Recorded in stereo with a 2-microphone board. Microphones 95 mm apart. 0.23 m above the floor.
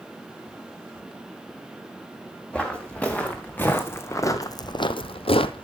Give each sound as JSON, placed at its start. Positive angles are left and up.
{"t": 2.5, "sound": "footsteps", "side_deg": 10, "distance_m": 2.0}